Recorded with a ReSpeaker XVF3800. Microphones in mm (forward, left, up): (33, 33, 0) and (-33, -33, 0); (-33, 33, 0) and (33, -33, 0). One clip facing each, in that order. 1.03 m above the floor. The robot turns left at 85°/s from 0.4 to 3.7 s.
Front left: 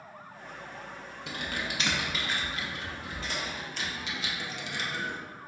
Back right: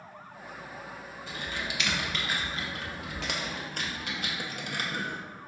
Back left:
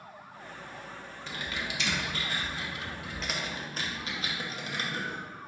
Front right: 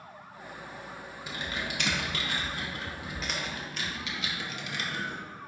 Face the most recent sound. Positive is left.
turn(degrees=-170)